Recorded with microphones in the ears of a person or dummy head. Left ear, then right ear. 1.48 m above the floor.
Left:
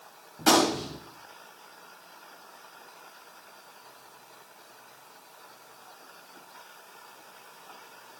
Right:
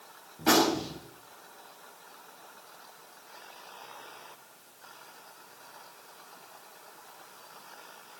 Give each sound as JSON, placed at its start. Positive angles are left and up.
{"t": 0.4, "sound": "a gunshot", "side_deg": 45, "distance_m": 5.0}